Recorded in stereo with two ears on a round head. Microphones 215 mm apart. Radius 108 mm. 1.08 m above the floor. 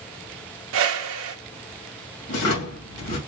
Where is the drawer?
75° left (ahead or behind), 2.5 m.